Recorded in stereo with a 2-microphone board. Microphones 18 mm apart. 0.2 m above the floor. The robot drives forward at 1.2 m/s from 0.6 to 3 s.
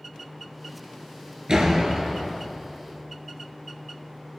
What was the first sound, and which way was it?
A door slam, 40° right (ahead or behind).